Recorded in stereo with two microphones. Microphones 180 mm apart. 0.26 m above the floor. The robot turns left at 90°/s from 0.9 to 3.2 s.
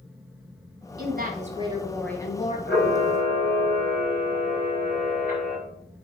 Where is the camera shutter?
105° left, 4.5 m; by 5.6 s 55° left, 4.5 m.